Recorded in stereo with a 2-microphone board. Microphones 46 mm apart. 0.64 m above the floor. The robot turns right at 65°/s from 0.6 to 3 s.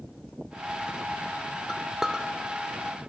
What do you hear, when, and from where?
1.7 s a clink: 10° left (ahead or behind), 1.2 m; by 2.2 s 25° right (ahead or behind), 1.2 m